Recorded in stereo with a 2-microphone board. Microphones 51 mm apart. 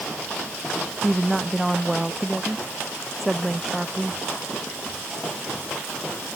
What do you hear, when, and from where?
1.0 s a woman speaking: centre (ahead or behind)